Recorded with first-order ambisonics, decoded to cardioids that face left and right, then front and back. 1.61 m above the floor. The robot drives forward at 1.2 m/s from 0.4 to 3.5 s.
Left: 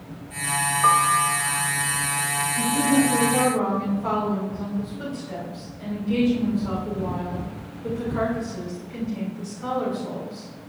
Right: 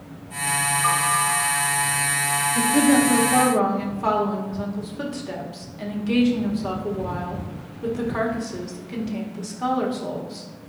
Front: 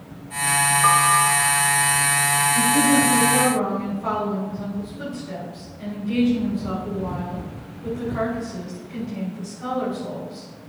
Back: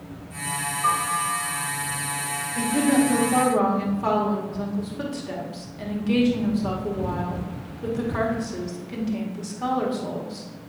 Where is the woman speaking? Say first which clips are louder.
Right 3 dB, even; 95° right, 1.7 m; by 10.4 s 125° right, 2 m.